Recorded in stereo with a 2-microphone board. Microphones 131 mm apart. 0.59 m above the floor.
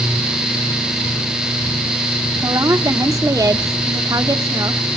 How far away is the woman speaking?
About 1.1 m.